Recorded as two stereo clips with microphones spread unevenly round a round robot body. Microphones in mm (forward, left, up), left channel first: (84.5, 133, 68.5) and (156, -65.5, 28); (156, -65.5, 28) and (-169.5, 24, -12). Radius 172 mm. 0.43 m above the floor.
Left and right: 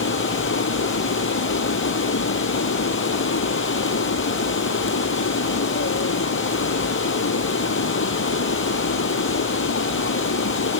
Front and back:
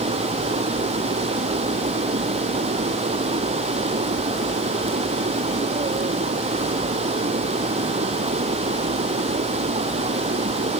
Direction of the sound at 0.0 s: 90° left.